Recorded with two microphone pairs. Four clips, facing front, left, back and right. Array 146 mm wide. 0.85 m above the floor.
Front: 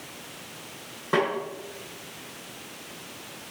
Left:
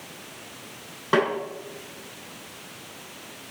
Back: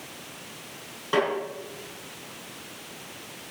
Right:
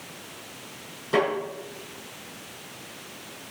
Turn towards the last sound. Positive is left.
turn(degrees=90)